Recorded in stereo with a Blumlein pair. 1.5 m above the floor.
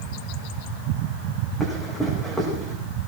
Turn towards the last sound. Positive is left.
turn(degrees=0)